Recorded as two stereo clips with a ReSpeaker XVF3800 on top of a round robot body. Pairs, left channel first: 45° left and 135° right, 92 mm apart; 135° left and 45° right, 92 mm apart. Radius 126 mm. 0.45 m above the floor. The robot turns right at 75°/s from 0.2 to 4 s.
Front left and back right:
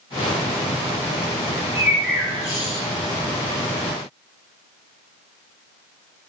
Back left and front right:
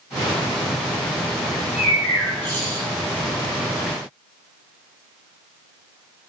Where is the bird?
80° right, 3.5 m; by 2.9 s 20° left, 3.5 m.